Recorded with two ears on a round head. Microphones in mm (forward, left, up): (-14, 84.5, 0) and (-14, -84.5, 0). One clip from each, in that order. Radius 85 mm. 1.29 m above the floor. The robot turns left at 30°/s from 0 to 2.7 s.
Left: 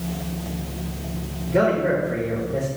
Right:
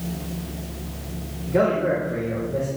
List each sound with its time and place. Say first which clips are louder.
1.5 s a man speaking: left 1 dB; 175° right, 3 m; by 2.7 s 150° left, 3 m